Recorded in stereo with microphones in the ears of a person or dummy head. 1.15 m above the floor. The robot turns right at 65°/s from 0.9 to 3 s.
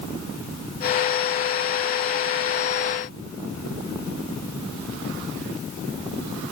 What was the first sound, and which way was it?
Only background noise.